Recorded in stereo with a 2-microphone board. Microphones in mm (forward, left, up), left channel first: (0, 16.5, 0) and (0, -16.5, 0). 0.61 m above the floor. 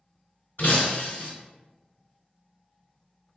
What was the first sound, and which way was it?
Breaking glass, 60° left (ahead or behind).